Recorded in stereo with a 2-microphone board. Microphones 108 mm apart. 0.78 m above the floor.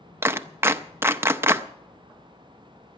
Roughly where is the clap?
Right.